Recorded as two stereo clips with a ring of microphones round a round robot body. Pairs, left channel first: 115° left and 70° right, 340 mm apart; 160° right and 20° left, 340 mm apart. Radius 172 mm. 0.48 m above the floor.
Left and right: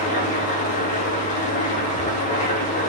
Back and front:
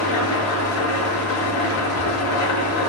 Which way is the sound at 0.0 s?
175° left.